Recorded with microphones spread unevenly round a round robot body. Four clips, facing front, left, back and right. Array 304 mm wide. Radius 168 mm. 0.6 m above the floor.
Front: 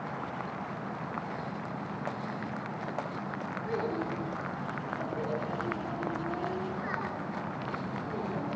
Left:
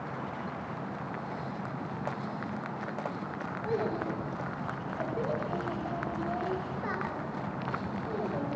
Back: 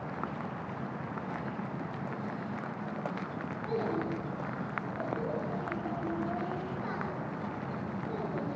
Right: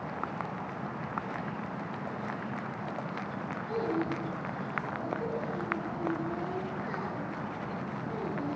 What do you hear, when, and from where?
3.6 s a child speaking: 75° left, 6 m